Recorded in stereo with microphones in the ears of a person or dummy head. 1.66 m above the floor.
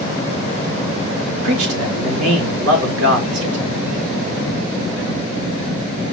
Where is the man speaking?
70° right (ahead or behind), 2.5 m.